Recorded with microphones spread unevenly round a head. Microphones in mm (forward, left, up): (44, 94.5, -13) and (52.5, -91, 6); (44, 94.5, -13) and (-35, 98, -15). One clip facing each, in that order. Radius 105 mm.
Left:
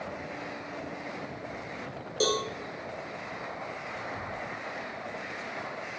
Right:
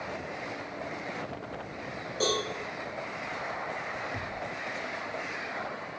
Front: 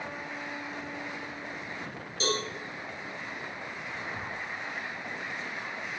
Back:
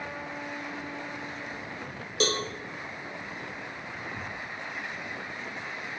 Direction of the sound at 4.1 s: 85° right.